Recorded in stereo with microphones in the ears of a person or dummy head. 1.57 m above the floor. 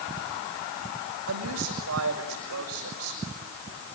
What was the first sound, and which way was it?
A woman speaking, 80° right.